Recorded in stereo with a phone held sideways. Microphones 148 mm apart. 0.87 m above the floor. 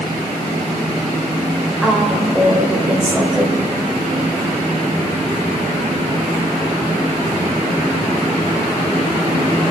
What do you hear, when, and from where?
1.8 s a woman speaking: 5° right (ahead or behind), 3.5 m